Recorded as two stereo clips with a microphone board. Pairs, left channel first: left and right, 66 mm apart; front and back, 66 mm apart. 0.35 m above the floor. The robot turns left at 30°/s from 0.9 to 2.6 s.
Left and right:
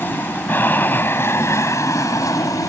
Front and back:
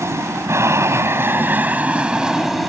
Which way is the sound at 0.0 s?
145° left.